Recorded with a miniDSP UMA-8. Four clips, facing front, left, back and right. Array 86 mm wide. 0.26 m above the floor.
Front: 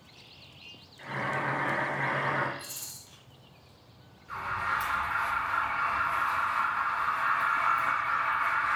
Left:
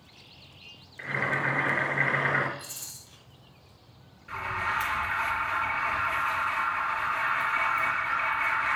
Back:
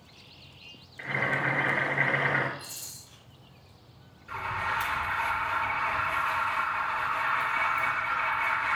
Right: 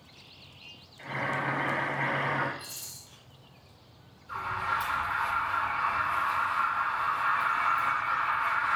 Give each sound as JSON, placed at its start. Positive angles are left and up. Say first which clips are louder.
{"t": 1.0, "sound": "boiling", "louder": "left 2 dB, back 2 dB", "azimuth_deg": 130, "distance_m": 3.5}
{"t": 2.6, "sound": "a rattle", "louder": "left 1 dB, even", "azimuth_deg": 55, "distance_m": 4.0}
{"t": 4.3, "sound": "an alarm", "louder": "even, even", "azimuth_deg": 115, "distance_m": 3.5}